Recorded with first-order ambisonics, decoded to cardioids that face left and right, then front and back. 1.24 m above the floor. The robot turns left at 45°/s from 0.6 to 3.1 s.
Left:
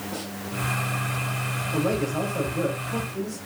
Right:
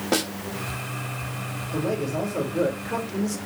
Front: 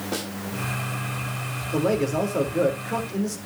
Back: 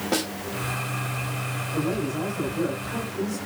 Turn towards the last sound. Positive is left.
turn(degrees=-50)